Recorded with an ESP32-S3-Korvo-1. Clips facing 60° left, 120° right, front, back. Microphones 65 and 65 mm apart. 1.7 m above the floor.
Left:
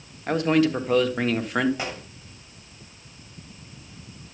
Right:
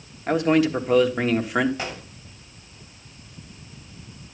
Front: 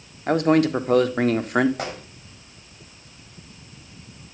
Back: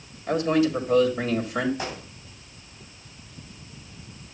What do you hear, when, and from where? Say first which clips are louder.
0.3 s a man speaking: right 1 dB, front 4 dB; 35° right, 1.4 m
1.8 s a gunshot: even, front 2 dB; 15° right, 7.5 m